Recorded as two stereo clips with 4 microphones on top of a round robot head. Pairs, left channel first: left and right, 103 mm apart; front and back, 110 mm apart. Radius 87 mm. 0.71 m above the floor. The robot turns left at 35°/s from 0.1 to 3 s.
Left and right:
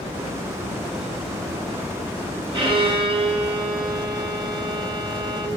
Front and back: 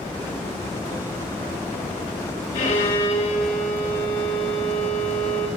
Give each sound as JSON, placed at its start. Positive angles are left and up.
{"t": 2.5, "sound": "a violin", "azimuth_deg": -50, "distance_m": 3.5}